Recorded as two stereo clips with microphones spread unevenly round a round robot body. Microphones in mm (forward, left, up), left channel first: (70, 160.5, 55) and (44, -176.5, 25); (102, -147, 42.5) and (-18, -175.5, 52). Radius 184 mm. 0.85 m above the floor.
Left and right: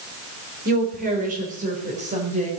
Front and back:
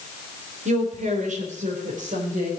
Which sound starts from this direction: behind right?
A woman speaking, at 0.7 s.